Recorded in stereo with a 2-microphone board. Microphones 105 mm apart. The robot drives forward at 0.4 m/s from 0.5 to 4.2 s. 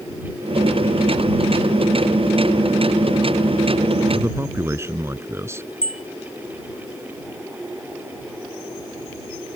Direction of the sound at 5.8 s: 75° left (ahead or behind).